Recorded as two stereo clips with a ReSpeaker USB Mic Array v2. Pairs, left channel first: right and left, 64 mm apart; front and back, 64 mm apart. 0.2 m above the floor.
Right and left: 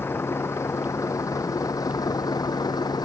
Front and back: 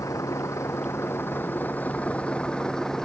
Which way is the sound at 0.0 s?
35° right.